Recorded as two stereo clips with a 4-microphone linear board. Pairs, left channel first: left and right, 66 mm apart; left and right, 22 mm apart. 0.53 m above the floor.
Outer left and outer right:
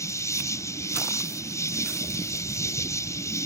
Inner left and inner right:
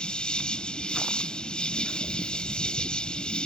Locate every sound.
0.0 s an insect: 50° left (ahead or behind)